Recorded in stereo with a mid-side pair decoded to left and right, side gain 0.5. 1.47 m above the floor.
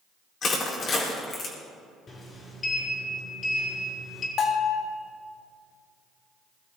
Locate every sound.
0.4 s crushing: 50° left, 5 m
2.1 s a sliding door: 40° left, 5.5 m
4.4 s a bell: 55° left, 3 m